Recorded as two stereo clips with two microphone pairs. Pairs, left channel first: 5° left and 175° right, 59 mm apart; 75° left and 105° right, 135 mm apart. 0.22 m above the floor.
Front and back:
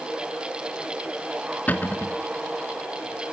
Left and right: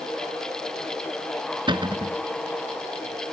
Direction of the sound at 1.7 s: 55° right.